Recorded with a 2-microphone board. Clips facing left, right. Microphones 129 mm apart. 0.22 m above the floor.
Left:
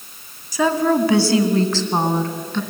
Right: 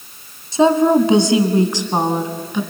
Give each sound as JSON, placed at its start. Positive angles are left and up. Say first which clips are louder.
{"t": 0.5, "sound": "a woman speaking", "louder": "right 5 dB", "side_deg": -25, "distance_m": 1.8}